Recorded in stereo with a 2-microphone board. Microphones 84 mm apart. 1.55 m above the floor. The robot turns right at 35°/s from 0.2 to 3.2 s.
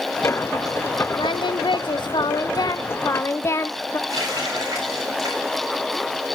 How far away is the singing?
About 0.6 m.